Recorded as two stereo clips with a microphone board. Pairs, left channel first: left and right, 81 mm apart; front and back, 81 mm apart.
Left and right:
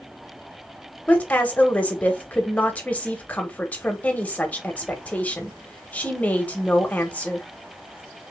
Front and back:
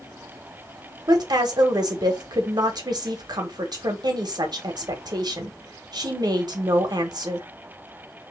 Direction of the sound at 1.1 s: 160° left.